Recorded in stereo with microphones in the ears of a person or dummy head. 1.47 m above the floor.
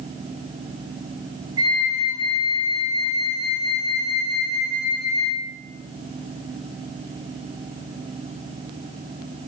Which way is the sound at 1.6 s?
20° right (ahead or behind).